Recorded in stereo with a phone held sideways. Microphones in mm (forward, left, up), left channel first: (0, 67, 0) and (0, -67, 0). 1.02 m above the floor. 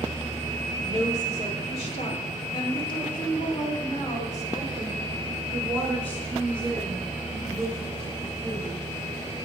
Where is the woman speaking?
65° left (ahead or behind), 3.5 m; by 8.9 s 5° right (ahead or behind), 5.5 m.